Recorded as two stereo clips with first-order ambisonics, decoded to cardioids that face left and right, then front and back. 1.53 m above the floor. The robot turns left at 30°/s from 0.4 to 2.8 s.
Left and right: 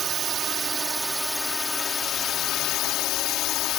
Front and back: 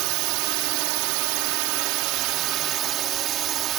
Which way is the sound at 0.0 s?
155° right.